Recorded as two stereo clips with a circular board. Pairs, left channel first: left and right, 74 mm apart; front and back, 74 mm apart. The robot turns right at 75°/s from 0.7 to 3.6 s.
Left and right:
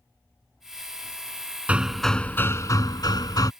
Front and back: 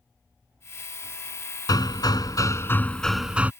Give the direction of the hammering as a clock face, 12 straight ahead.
1 o'clock.